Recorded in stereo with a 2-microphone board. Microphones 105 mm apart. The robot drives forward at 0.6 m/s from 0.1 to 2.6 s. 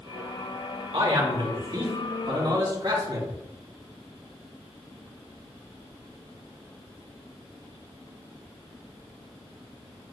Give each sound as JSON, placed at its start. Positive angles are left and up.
{"t": 0.9, "sound": "a man speaking", "side_deg": -65, "distance_m": 3.5}